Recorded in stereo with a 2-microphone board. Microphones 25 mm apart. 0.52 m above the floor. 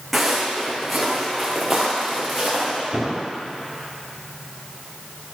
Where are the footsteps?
5° right (ahead or behind), 2.5 m; by 2.8 s centre (ahead or behind), 4 m.